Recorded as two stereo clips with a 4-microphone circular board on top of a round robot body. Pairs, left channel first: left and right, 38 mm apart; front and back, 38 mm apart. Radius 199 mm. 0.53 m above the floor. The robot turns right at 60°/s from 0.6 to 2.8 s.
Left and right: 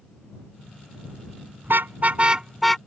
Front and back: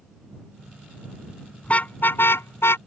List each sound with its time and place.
1.6 s a car horn: 60° right; by 2.8 s 10° left